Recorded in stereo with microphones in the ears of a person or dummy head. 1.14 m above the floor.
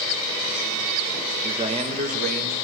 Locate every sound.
1.4 s a man speaking: 20° right (ahead or behind), 1.2 m; by 2.6 s 55° right (ahead or behind), 2.5 m